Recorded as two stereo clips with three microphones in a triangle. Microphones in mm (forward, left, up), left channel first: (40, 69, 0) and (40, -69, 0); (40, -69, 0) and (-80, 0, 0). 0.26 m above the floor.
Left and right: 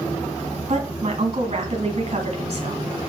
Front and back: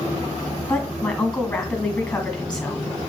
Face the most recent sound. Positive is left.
turn(degrees=-110)